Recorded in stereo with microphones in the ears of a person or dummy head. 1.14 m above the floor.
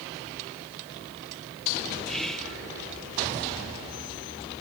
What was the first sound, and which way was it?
Whispering, 5° left (ahead or behind).